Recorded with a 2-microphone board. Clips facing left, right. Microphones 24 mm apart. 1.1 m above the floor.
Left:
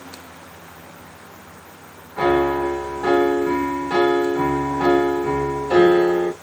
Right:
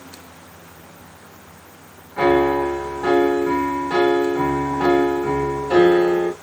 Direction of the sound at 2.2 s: 15° right (ahead or behind).